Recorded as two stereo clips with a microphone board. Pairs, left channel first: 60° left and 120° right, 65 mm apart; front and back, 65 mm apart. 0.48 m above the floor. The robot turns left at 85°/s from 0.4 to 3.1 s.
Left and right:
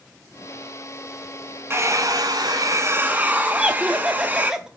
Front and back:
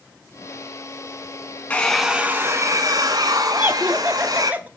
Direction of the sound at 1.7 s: 65° right.